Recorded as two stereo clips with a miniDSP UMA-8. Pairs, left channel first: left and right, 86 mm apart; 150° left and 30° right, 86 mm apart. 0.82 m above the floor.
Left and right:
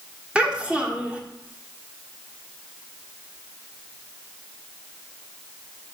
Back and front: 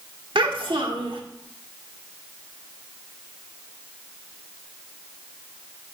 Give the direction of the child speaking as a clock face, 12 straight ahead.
12 o'clock.